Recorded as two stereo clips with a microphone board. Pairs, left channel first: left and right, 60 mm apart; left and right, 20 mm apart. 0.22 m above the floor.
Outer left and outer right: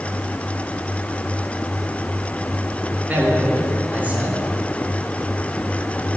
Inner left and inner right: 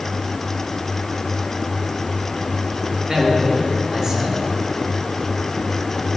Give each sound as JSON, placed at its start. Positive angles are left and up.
{"t": 3.1, "sound": "a man speaking", "side_deg": -25, "distance_m": 4.0}